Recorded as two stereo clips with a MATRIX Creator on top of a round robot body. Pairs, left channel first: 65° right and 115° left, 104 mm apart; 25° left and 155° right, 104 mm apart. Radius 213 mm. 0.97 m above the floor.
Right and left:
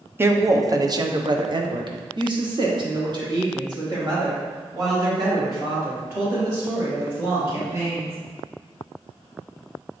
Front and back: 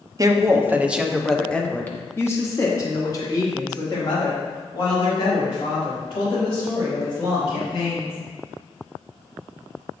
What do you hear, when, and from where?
0.2 s a woman speaking: 170° left, 0.9 m; by 8.2 s 60° left, 4 m